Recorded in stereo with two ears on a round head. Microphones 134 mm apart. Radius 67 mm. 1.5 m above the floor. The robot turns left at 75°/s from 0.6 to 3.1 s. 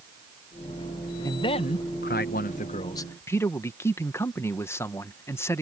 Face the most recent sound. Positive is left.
turn(degrees=20)